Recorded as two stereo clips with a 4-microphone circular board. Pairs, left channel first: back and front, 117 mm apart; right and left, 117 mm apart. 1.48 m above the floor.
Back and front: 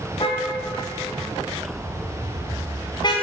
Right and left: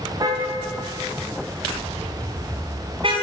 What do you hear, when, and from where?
0.2 s a car horn: 145° left, 4 m; by 3.1 s 130° left, 5 m